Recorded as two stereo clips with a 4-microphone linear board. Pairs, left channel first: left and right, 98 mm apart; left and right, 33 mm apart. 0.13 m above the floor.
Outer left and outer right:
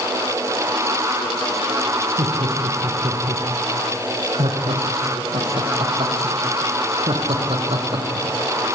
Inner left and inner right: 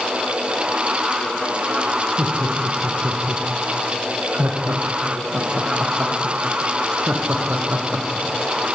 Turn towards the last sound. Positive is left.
turn(degrees=-65)  # may be behind; listen again after turning